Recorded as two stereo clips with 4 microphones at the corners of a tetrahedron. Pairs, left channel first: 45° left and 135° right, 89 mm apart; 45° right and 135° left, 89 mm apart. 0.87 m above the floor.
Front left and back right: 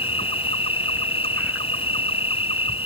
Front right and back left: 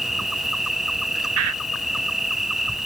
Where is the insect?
45° left.